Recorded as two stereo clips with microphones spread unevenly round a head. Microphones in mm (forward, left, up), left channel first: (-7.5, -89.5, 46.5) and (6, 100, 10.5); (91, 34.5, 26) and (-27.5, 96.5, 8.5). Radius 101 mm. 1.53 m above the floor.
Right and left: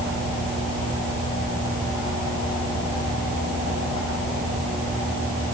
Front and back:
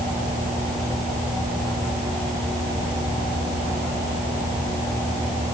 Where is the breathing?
No breathing in this recording.